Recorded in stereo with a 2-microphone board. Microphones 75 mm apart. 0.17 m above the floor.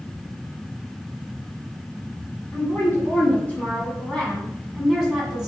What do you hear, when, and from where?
2.5 s a woman speaking: 35° left (ahead or behind), 1.8 m; by 5.5 s 10° right (ahead or behind), 1.7 m